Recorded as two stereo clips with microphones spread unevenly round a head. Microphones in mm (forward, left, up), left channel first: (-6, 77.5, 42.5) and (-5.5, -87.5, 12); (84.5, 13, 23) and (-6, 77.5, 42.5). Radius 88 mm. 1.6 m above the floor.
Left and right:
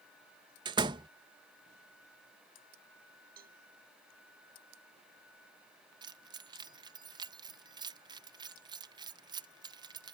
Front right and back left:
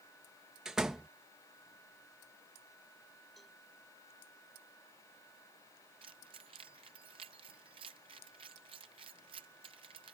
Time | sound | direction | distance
0.7 | a door slam | 150° right | ?
3.4 | a cowbell | 125° right | ?
6.0 | keys jangling | 160° right | ?